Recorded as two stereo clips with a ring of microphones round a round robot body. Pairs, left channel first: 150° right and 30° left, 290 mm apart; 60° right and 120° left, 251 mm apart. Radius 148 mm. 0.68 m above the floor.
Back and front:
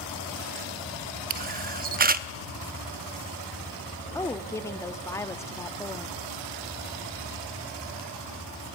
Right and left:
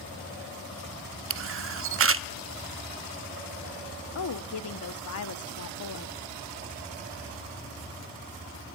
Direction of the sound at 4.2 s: 70° right.